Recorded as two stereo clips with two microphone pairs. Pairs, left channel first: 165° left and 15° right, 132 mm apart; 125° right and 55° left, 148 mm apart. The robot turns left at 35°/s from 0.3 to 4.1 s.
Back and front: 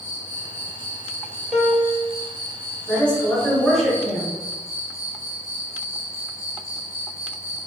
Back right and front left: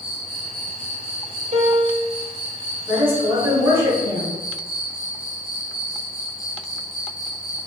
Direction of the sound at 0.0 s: Straight ahead.